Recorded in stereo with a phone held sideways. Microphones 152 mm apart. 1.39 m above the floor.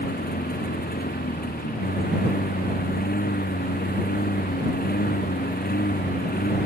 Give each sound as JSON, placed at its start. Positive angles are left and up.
{"t": 0.0, "sound": "a lawn mower", "side_deg": 85}